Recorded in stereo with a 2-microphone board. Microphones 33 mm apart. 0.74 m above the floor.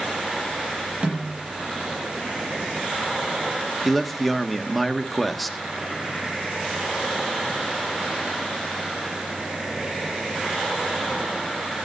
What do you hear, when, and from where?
1.0 s a snare drum: 35° right (ahead or behind), 6.5 m
3.9 s a man speaking: 5° left (ahead or behind), 1.2 m